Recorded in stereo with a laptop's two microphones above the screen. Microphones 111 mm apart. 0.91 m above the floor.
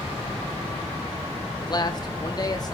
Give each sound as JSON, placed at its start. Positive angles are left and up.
{"t": 1.6, "sound": "a man speaking", "side_deg": 35, "distance_m": 1.3}